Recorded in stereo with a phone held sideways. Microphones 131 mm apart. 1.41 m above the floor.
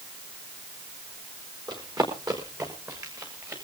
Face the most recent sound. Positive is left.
turn(degrees=-25)  # may be behind; listen again after turning